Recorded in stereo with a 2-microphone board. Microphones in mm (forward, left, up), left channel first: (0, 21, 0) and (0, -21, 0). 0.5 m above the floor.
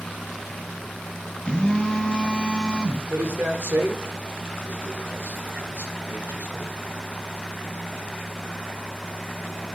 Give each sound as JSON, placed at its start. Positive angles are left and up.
{"t": 1.5, "sound": "a phone buzzing", "side_deg": 20, "distance_m": 0.9}
{"t": 3.1, "sound": "a man speaking", "side_deg": -55, "distance_m": 1.6}